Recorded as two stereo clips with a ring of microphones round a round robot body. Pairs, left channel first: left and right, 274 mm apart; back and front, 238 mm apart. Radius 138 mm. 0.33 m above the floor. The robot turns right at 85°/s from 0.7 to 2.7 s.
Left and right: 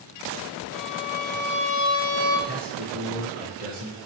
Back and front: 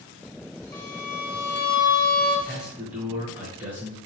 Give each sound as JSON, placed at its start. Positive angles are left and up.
{"t": 0.7, "sound": "a violin", "azimuth_deg": 115, "distance_m": 1.9}
{"t": 2.5, "sound": "a man speaking", "azimuth_deg": -95, "distance_m": 1.0}